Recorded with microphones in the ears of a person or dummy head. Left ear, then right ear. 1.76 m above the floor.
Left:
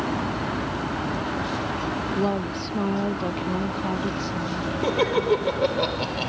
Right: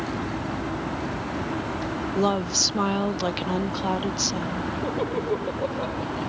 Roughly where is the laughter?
Left.